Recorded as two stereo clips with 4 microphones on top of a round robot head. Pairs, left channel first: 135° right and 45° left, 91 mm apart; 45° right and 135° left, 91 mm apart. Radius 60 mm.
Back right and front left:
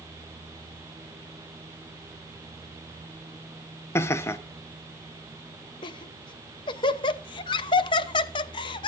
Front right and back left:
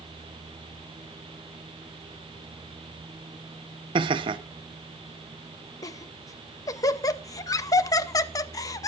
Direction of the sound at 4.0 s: 165° left.